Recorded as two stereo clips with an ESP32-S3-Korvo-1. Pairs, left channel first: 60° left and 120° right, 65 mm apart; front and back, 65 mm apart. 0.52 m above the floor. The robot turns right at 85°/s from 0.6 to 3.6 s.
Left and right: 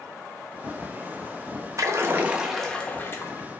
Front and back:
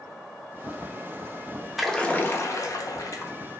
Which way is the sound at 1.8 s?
95° right.